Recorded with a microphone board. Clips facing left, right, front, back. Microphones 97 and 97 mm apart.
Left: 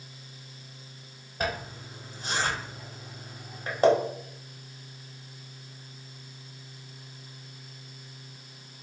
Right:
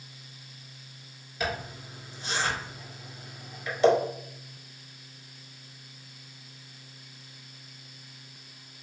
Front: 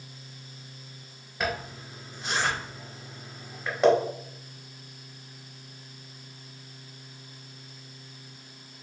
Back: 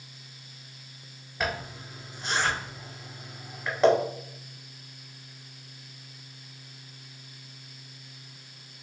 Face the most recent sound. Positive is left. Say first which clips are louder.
# left 1 dB, front 1 dB
turn(degrees=90)